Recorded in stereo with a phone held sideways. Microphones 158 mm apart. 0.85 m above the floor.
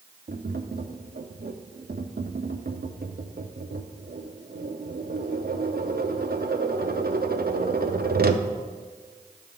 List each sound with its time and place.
0.3 s tapping: 75° right (ahead or behind), 0.6 m